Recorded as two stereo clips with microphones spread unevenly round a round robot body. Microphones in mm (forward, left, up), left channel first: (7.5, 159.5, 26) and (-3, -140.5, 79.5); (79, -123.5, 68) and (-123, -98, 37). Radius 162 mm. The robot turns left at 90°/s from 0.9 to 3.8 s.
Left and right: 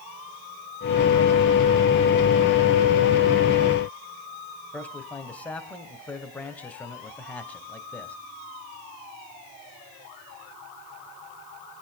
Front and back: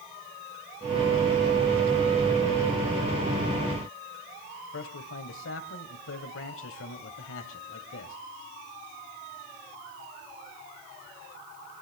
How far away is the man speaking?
About 2.5 m.